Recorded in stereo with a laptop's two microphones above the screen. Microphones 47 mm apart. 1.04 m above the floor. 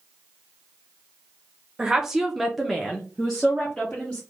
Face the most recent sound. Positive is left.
turn(degrees=10)  # may be behind; listen again after turning